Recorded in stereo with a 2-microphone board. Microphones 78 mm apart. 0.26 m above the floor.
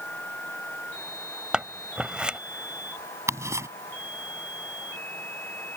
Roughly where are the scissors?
Centre.